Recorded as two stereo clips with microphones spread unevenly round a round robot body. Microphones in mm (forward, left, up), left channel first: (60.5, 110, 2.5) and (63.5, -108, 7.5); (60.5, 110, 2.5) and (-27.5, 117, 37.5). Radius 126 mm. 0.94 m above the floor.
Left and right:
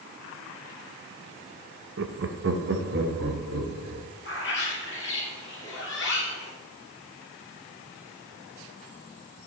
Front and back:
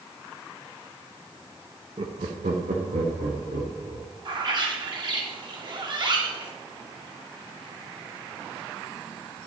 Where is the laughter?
125° right, 0.5 m; by 4.0 s 145° right, 1.7 m.